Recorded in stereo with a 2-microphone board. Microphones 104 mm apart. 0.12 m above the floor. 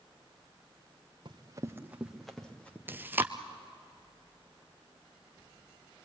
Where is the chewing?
20° right (ahead or behind), 0.9 m.